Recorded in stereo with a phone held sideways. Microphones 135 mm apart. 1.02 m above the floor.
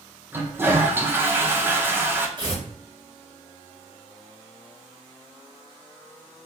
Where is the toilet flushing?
15° right (ahead or behind), 0.7 m.